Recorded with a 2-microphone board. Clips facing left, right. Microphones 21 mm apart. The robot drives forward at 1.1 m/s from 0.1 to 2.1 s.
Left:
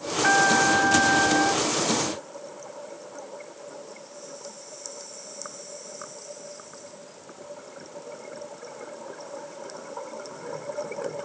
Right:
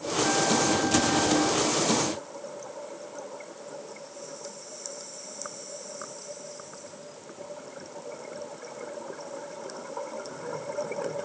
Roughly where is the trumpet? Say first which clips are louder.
Left 6 dB; left.